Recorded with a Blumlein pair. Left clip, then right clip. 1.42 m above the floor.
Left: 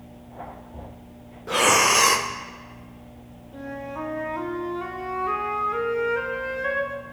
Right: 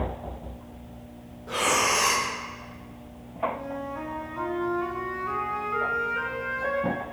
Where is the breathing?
25° left, 0.6 m.